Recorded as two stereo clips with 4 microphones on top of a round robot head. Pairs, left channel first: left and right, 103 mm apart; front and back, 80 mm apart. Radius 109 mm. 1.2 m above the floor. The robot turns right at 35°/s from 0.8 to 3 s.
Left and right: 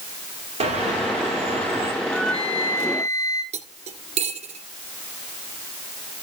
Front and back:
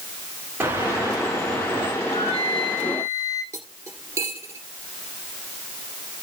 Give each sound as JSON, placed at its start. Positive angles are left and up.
{"t": 0.6, "sound": "a bird", "azimuth_deg": -105, "distance_m": 3.5}
{"t": 2.0, "sound": "a flute", "azimuth_deg": -5, "distance_m": 5.0}
{"t": 3.5, "sound": "cutlery clinking", "azimuth_deg": -110, "distance_m": 1.9}